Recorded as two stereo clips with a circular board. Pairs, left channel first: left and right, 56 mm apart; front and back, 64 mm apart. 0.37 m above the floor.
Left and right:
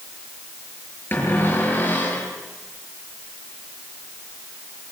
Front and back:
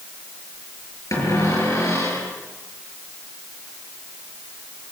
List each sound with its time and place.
1.1 s a cupboard door: 35° left, 6 m